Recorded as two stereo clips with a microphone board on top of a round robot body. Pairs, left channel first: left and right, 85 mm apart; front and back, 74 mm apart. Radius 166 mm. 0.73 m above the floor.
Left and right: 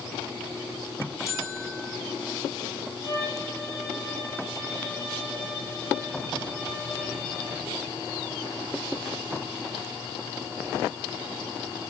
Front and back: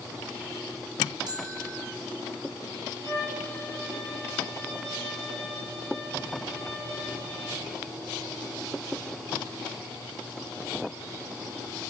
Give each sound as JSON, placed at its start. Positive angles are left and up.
{"t": 1.3, "sound": "a bell", "azimuth_deg": 145, "distance_m": 2.0}
{"t": 3.0, "sound": "a violin", "azimuth_deg": 145, "distance_m": 7.5}